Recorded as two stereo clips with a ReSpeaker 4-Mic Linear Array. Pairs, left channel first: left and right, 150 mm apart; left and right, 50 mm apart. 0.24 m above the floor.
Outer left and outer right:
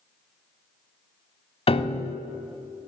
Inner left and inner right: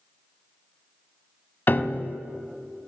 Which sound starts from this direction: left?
A piano, at 1.7 s.